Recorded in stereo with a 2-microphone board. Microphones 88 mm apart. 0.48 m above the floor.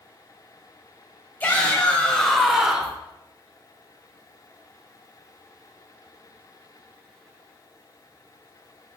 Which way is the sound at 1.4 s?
20° left (ahead or behind).